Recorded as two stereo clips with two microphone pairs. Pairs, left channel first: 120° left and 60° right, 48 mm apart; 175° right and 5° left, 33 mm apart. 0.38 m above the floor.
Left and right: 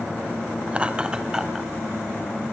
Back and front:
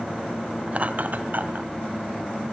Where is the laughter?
10° right, 1.0 m; by 1.7 s 20° left, 1.9 m.